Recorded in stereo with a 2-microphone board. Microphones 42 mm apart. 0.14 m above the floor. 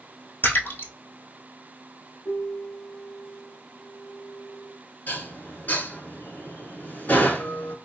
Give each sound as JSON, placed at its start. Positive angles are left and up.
{"t": 0.4, "sound": "a splash", "side_deg": 50, "distance_m": 1.0}
{"t": 2.2, "sound": "a piano", "side_deg": 55, "distance_m": 1.0}
{"t": 5.1, "sound": "dishes clattering", "side_deg": 45, "distance_m": 1.2}